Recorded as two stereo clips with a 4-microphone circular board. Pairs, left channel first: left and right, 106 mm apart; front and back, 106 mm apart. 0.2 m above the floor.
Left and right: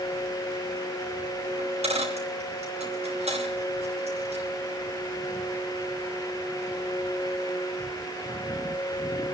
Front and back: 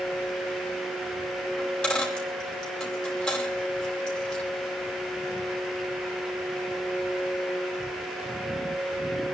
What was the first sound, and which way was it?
A dropped coin, 85° right.